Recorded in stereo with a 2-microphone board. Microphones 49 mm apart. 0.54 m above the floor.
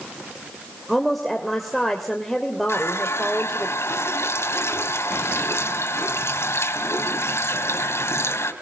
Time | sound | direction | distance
0.9 | a woman speaking | centre (ahead or behind) | 2.5 m
2.7 | a running tap | 75° left (ahead or behind) | 2.5 m